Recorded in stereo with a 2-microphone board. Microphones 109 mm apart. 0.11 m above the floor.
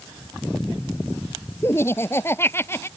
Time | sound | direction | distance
1.6 | laughter | 20° left (ahead or behind) | ?